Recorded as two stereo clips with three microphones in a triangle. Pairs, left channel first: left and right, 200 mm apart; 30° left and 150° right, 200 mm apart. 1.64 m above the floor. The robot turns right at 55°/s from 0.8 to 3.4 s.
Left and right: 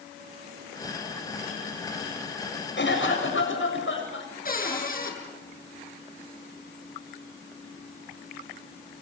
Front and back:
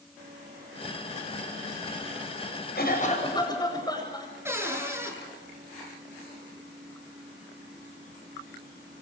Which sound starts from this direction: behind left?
A cupboard door, at 4.5 s.